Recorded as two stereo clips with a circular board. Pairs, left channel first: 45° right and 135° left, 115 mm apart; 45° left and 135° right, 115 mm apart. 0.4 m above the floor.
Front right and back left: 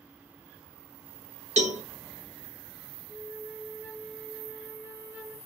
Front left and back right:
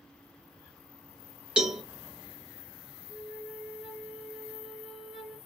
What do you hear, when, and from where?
1.6 s a cowbell: 145° left, 0.6 m
3.1 s a flute: 145° left, 1.2 m